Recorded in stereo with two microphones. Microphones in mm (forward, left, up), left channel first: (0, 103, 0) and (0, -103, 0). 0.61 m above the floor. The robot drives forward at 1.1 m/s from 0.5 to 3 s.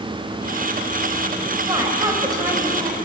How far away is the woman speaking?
About 3.5 m.